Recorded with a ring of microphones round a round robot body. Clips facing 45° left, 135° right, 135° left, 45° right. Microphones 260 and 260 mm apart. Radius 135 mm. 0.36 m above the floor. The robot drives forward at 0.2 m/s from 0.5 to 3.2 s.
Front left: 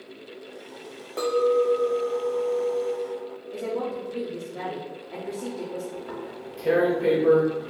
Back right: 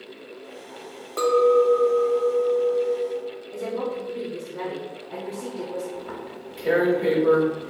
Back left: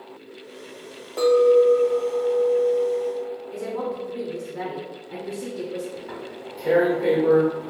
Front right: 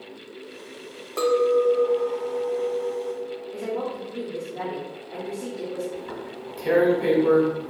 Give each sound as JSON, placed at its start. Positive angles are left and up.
{"t": 1.2, "sound": "a clink", "azimuth_deg": -85, "distance_m": 0.5}
{"t": 3.5, "sound": "a woman speaking", "azimuth_deg": 150, "distance_m": 0.9}
{"t": 6.0, "sound": "tearing paper", "azimuth_deg": -85, "distance_m": 1.2}